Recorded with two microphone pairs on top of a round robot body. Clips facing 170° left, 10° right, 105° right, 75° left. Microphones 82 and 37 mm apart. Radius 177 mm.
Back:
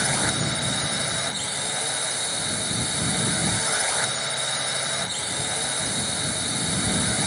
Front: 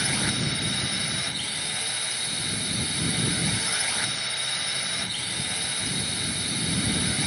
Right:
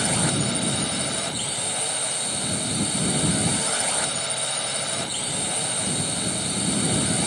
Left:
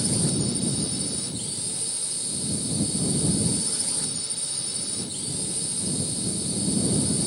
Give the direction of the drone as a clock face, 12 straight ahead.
4 o'clock.